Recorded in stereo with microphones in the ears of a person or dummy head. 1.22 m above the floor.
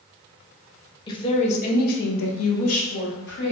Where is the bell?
No bell in this recording.